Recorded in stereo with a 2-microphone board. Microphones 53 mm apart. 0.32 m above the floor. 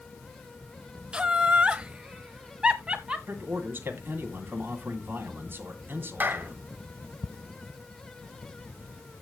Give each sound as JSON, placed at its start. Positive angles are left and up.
{"t": 1.1, "sound": "laughter", "side_deg": -20, "distance_m": 1.0}
{"t": 3.3, "sound": "a man speaking", "side_deg": -40, "distance_m": 2.0}
{"t": 6.2, "sound": "a clap", "side_deg": -40, "distance_m": 1.7}